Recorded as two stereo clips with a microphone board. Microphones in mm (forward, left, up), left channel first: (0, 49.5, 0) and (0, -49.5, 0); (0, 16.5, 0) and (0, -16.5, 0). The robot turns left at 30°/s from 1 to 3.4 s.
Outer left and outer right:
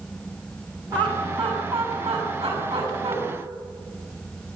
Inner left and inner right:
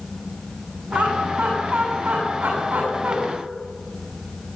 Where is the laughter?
50° right (ahead or behind), 8.5 m; by 3.2 s 65° right (ahead or behind), 8.5 m.